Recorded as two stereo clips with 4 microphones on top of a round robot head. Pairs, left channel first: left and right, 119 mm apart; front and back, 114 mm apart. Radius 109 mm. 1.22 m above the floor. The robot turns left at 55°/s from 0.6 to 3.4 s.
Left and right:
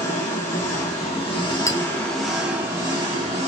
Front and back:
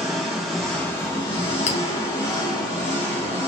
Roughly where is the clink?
Ahead left.